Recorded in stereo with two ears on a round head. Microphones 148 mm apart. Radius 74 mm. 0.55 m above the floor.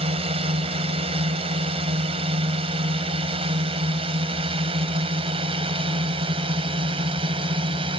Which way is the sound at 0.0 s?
35° right (ahead or behind).